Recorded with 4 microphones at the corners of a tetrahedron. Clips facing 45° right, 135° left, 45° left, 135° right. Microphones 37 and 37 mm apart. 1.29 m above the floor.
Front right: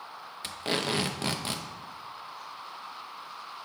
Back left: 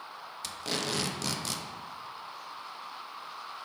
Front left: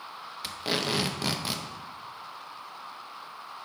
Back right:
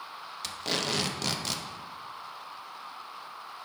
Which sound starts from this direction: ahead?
Tape being pulled, at 0.4 s.